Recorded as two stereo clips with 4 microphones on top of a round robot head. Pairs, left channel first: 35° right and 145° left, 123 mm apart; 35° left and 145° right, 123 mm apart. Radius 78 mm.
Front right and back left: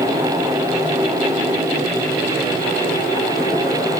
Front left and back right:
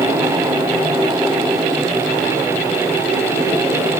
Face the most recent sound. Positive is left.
No sound to turn to.